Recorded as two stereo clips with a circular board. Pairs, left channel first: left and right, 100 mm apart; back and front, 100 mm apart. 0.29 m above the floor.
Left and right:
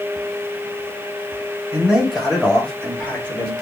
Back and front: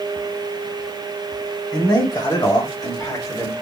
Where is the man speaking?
170° right, 2.0 m; by 3.5 s 145° left, 1.8 m.